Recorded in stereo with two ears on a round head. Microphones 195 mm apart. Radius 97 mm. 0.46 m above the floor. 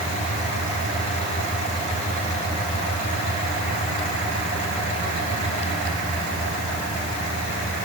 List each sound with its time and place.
Only background noise.